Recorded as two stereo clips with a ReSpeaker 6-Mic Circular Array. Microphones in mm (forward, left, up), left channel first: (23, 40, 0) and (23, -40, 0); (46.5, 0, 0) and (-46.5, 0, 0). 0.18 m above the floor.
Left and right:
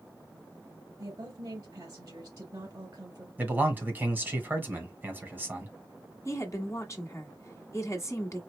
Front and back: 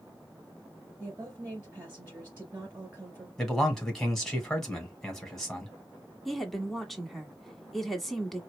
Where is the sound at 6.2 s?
90° left, 1.3 m.